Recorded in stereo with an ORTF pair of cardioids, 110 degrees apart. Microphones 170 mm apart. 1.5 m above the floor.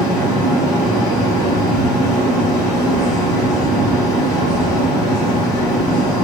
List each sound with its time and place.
0.0 s a fan: 20° left, 1.9 m